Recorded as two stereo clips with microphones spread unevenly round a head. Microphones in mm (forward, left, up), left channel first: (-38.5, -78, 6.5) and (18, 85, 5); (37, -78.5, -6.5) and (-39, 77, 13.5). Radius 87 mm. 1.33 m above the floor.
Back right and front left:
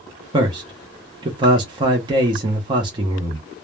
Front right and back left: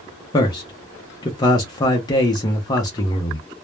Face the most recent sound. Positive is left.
turn(degrees=5)